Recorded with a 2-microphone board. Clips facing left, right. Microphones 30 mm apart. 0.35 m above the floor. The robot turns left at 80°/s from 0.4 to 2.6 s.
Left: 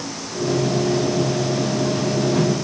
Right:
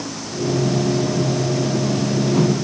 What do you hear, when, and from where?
Only background noise.